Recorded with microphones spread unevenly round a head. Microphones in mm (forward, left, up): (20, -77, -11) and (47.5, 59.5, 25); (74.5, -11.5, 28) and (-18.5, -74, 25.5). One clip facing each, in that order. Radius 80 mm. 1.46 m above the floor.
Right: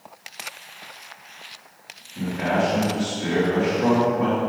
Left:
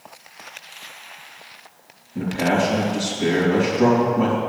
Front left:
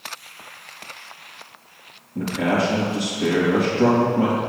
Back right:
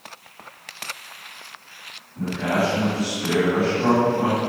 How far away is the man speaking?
About 3 m.